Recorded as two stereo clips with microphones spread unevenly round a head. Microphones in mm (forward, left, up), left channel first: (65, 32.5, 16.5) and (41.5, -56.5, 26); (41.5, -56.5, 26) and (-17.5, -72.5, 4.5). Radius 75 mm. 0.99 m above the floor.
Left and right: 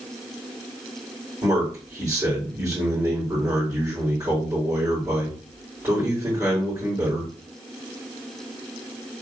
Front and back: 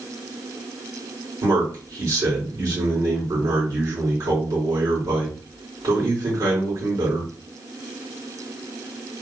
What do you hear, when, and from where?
1.4 s a man speaking: 175° right, 2.5 m